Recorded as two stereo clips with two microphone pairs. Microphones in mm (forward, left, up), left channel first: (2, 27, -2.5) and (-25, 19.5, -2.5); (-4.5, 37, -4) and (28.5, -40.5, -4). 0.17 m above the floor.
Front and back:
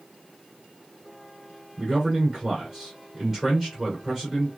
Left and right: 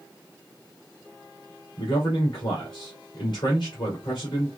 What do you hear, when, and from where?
1.8 s a man speaking: 120° left, 2.5 m